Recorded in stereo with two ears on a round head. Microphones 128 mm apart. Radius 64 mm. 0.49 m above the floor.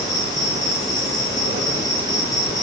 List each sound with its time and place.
0.0 s an insect: 25° left (ahead or behind), 1.4 m